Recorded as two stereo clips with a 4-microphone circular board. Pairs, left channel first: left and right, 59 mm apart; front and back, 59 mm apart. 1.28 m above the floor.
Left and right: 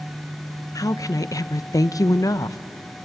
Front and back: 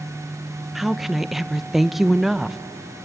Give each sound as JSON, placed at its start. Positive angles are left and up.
{"t": 0.8, "sound": "a woman speaking", "azimuth_deg": 95, "distance_m": 0.6}